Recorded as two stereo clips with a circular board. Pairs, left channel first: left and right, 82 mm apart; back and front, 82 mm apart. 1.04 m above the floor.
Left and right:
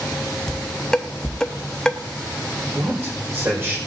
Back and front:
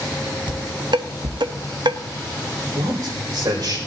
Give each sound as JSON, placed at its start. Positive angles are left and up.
{"t": 0.5, "sound": "dishes clattering", "azimuth_deg": 10, "distance_m": 0.9}
{"t": 2.8, "sound": "a man speaking", "azimuth_deg": -30, "distance_m": 4.5}